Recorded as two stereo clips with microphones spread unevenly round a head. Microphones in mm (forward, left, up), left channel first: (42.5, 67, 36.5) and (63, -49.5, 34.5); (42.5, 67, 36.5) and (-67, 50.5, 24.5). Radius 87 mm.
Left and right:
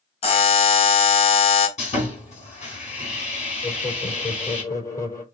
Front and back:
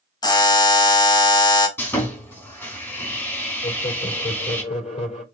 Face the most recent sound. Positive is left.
turn(degrees=40)